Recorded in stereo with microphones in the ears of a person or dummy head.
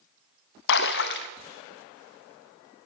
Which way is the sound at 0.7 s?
60° left (ahead or behind).